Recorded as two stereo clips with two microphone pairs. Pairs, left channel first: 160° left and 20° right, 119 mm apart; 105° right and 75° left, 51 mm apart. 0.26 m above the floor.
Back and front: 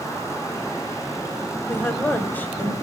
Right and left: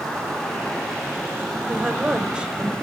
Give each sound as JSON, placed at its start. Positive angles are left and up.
{"t": 1.7, "sound": "a woman speaking", "azimuth_deg": 120, "distance_m": 1.1}